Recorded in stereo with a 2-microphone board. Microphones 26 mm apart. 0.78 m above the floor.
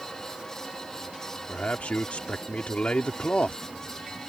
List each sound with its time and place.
1.5 s a man speaking: 60° left (ahead or behind)